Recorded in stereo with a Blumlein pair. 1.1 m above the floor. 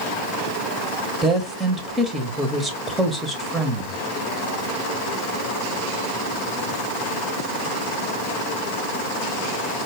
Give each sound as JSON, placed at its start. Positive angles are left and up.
{"t": 1.2, "sound": "a woman speaking", "azimuth_deg": -5, "distance_m": 0.8}